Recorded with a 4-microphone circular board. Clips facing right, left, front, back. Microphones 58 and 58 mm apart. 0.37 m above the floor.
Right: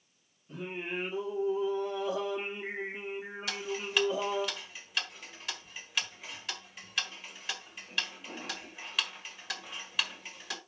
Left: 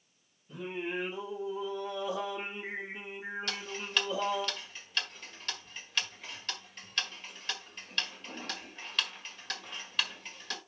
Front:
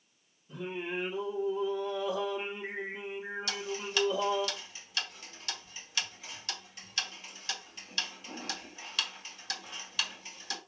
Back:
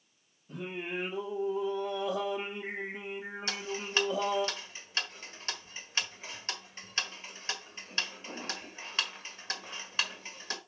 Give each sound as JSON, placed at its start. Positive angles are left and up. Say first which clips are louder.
{"t": 0.5, "sound": "singing", "louder": "left 1 dB, front 1 dB", "azimuth_deg": -150, "distance_m": 4.0}
{"t": 3.5, "sound": "ticking", "louder": "right 6 dB, back 4 dB", "azimuth_deg": -170, "distance_m": 1.4}